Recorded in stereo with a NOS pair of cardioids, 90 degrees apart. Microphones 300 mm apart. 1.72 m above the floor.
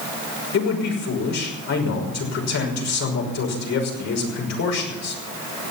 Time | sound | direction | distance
0.5 | a man speaking | 60° left | 6 m